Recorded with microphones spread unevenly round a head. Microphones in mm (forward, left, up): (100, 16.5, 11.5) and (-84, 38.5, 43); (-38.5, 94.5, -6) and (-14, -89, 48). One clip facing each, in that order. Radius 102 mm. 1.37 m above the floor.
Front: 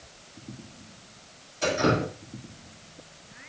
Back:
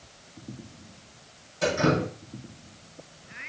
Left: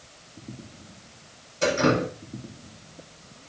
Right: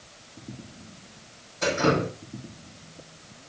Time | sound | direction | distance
1.6 | dripping | 150° left | 7.5 m